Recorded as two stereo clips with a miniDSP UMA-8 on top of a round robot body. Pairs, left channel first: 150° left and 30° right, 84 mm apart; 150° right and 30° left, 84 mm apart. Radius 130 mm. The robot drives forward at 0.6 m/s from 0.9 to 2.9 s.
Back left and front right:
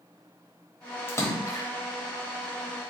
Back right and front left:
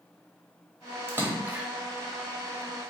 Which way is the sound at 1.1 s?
90° left.